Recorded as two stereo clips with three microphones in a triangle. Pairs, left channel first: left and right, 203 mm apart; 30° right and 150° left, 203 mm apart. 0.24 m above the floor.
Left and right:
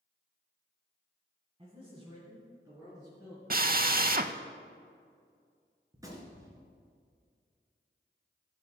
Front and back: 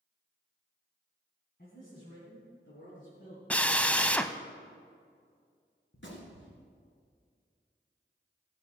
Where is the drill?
115° right, 0.5 m.